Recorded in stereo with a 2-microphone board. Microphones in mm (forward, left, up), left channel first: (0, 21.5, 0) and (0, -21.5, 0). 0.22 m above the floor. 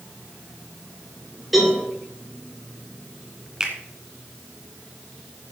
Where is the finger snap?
20° right (ahead or behind), 2.5 m.